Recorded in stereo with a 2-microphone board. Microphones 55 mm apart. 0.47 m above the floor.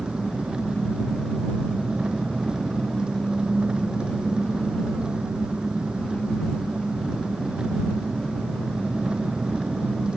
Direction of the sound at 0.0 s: 15° right (ahead or behind).